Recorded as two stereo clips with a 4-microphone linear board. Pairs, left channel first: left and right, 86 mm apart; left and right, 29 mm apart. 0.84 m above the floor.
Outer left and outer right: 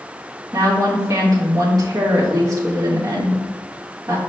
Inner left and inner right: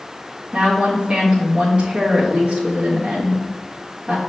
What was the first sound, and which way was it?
A woman speaking, 45° right (ahead or behind).